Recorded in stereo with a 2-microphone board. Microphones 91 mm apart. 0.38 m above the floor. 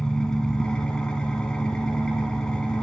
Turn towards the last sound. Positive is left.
turn(degrees=10)  # may be behind; listen again after turning